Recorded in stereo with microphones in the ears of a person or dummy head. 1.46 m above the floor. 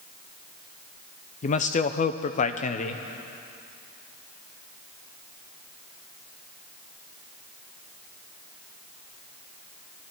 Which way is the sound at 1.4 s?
45° left (ahead or behind).